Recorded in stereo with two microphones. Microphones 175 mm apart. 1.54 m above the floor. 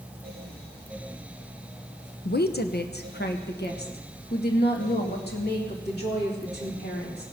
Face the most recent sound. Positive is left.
turn(degrees=70)  # may be behind; listen again after turning